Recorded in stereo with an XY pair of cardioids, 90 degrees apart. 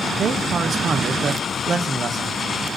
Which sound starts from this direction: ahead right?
A man speaking, at 0.2 s.